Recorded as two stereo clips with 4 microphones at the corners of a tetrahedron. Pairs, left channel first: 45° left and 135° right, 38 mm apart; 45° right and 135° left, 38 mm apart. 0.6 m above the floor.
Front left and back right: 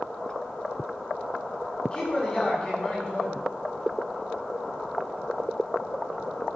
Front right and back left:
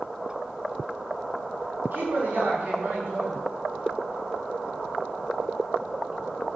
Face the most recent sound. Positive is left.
turn(degrees=120)